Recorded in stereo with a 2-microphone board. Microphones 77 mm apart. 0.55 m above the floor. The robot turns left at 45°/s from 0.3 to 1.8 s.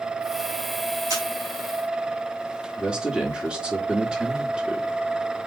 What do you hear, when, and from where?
1.1 s a camera shutter: 55° right (ahead or behind), 3 m; by 1.2 s 65° right (ahead or behind), 3 m
2.8 s a man speaking: 10° right (ahead or behind), 1.4 m